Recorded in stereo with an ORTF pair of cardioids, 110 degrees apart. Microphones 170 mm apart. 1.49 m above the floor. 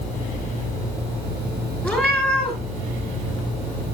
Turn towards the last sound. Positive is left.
turn(degrees=10)